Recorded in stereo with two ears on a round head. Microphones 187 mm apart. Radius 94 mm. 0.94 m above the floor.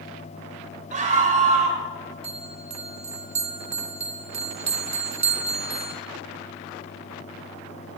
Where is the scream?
40° right (ahead or behind), 4 m.